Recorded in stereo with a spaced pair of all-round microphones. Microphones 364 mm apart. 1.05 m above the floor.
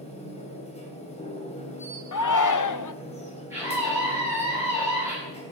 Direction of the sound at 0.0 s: 15° left (ahead or behind).